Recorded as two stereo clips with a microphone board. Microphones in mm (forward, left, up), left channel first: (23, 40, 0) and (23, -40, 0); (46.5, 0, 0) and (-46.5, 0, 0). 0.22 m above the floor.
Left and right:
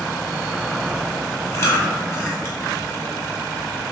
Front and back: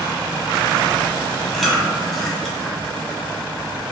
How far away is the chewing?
About 0.7 m.